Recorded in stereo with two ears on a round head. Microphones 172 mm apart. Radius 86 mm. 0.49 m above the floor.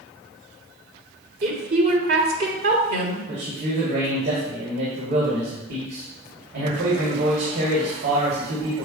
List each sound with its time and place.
1.4 s a woman speaking: 55° right (ahead or behind), 2 m
3.3 s a man speaking: 55° right (ahead or behind), 2.5 m